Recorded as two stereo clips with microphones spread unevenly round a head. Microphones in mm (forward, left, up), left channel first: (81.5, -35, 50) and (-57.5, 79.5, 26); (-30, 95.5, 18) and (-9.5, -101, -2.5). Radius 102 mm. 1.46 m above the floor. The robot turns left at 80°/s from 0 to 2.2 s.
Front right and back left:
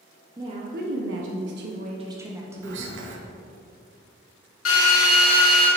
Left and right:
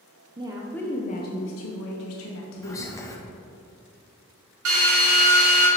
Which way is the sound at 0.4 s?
150° right.